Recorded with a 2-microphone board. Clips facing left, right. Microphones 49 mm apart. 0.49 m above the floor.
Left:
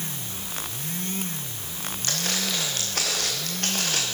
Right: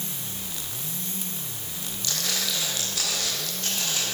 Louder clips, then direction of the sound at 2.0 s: Left 1 dB; 45° left (ahead or behind).